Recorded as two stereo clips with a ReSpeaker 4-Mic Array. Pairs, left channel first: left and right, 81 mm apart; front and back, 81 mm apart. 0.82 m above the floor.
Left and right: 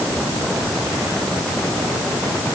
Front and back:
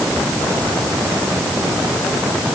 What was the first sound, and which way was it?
Only background noise.